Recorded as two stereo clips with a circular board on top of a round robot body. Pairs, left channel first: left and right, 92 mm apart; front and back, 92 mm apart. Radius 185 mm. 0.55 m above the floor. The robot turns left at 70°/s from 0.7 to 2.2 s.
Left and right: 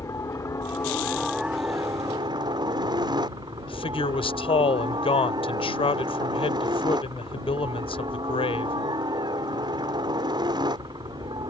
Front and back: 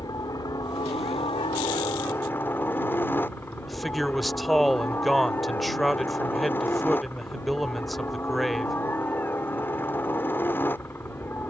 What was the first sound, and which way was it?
A helicopter, 40° left.